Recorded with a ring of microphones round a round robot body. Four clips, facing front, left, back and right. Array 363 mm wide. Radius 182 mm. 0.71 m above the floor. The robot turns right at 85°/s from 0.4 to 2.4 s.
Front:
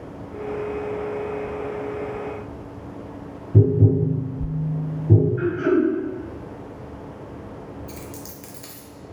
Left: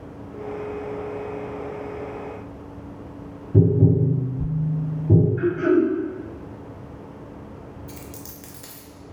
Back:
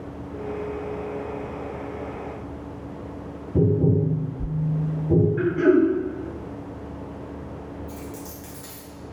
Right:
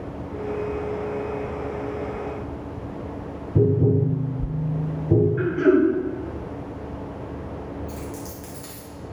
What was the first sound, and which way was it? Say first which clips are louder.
Tapping: left 1 dB, front 2 dB; 60° left.